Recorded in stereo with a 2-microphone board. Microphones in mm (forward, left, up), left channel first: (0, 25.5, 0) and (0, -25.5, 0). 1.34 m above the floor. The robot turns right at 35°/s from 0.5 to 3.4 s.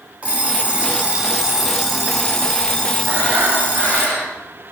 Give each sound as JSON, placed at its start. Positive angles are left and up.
{"t": 0.2, "sound": "an alarm clock", "azimuth_deg": -50, "distance_m": 0.9}
{"t": 3.1, "sound": "breathing", "side_deg": -65, "distance_m": 2.0}